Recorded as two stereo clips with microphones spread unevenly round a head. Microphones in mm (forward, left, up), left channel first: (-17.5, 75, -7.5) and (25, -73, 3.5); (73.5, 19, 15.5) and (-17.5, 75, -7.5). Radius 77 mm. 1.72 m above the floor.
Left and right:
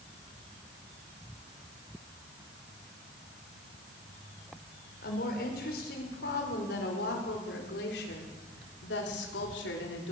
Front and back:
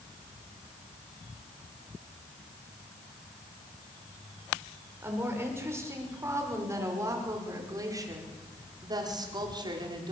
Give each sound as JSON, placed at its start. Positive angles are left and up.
{"t": 5.0, "sound": "a woman speaking", "azimuth_deg": 80, "distance_m": 6.0}